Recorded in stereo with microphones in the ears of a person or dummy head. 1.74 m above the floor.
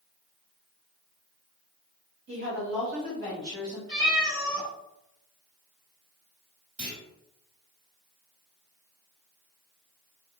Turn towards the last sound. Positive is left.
turn(degrees=-35)  # may be behind; listen again after turning